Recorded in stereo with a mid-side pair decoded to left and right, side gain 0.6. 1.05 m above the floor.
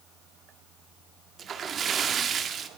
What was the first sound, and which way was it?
A splash, 40° right.